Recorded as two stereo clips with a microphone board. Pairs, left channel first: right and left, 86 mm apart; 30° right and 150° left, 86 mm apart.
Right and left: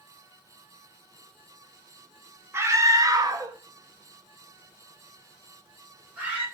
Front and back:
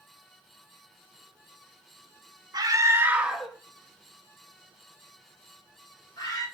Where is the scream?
140° left, 1.1 m; by 6.5 s 20° left, 4 m.